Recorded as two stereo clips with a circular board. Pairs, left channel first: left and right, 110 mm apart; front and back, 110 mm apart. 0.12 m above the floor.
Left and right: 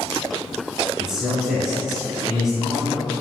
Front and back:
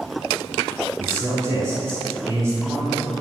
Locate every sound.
1.0 s a man speaking: 170° right, 1.1 m